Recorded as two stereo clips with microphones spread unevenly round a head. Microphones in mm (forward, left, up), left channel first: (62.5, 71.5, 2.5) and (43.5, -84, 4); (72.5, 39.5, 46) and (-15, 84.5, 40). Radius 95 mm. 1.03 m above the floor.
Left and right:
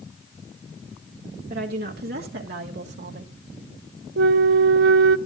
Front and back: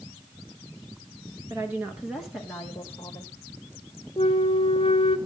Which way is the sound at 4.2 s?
85° right.